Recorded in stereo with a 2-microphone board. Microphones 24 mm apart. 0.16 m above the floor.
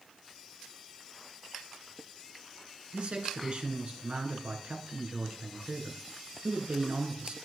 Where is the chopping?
I don't hear chopping.